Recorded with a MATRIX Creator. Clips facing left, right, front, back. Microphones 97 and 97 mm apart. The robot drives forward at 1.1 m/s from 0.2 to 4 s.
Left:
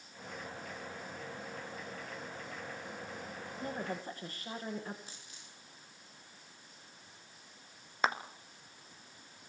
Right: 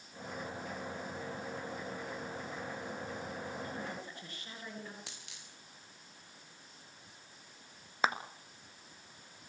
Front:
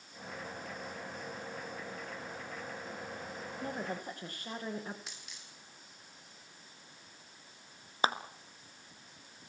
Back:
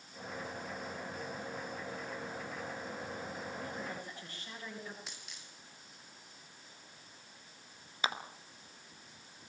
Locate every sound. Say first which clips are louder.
3.6 s a woman speaking: left 3 dB, front 3 dB; 40° left, 8.5 m
5.1 s a dropped coin: right 1 dB, even; 90° right, 7 m
8.0 s a clap: even, front 6 dB; straight ahead, 1.5 m